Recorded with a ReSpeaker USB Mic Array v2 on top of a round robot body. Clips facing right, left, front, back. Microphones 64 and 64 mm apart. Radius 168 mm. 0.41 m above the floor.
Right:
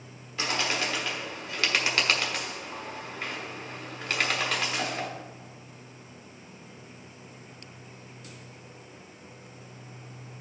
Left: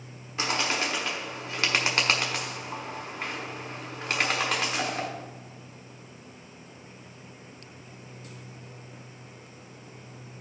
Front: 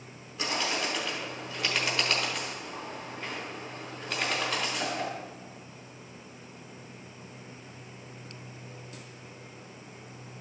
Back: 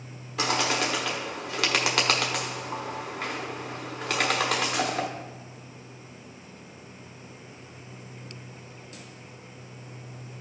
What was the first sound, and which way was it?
A bird, 160° left.